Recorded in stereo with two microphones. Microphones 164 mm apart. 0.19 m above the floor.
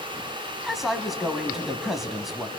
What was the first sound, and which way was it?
A man speaking, centre (ahead or behind).